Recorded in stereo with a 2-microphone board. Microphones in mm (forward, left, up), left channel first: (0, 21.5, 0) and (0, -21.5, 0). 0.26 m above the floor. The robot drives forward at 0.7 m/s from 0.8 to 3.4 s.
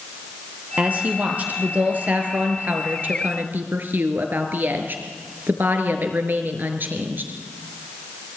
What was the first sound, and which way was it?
A woman speaking, 35° right (ahead or behind).